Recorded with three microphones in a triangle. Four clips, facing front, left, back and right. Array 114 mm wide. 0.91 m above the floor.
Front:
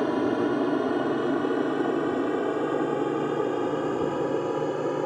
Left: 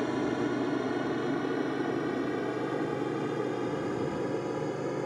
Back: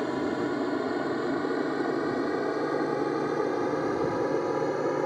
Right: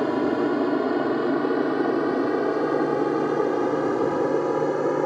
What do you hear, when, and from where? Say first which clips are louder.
0.0 s an aircraft: right 7 dB, front 4 dB; 65° right; by 5.1 s 85° right